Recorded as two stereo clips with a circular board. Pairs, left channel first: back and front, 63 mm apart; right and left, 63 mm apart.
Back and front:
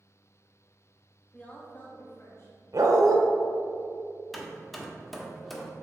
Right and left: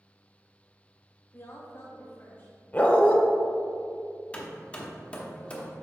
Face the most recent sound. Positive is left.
turn(degrees=-95)